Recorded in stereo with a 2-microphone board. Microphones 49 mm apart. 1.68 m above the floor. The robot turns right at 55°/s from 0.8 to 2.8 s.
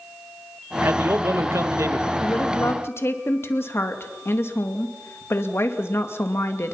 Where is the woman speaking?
90° left, 2 m; by 6.7 s 125° left, 2 m.